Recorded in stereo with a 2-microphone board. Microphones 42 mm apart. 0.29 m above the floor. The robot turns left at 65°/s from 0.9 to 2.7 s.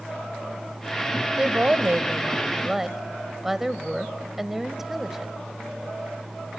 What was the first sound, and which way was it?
A woman speaking, 80° right.